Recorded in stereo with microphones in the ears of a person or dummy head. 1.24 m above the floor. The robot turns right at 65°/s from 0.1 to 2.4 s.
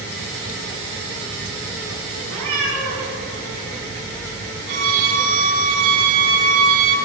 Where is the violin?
45° right (ahead or behind), 1.2 m.